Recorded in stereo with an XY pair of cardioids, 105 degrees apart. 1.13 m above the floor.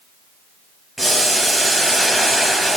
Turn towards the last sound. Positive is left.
turn(degrees=-10)